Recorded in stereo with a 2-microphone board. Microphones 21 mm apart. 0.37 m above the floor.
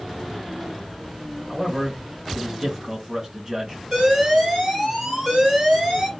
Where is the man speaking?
30° right (ahead or behind), 3 m.